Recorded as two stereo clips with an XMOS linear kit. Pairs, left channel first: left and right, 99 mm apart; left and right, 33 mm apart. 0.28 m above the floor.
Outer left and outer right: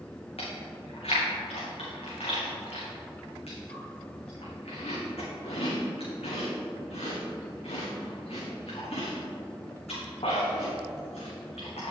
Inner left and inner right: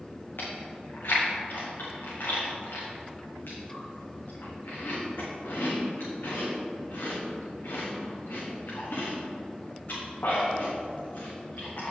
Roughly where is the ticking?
I don't hear ticking.